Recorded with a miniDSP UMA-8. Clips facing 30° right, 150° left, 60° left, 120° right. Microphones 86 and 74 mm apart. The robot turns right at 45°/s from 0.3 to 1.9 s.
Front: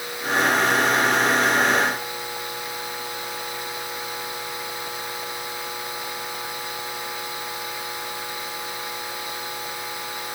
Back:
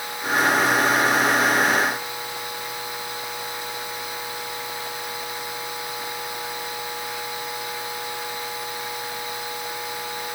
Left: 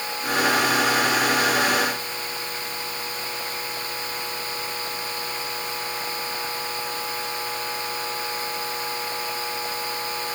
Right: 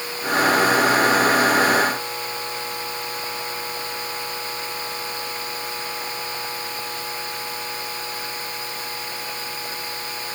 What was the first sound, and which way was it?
Only background noise.